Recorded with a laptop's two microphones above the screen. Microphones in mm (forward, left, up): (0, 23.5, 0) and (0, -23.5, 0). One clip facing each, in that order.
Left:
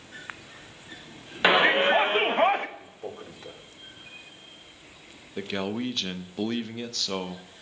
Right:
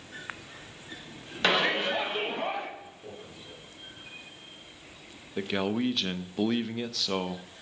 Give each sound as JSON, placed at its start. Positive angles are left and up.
{"t": 1.4, "sound": "a shout", "side_deg": 15, "distance_m": 0.9}
{"t": 2.8, "sound": "a man speaking", "side_deg": 65, "distance_m": 2.5}
{"t": 5.4, "sound": "a man speaking", "side_deg": -5, "distance_m": 0.6}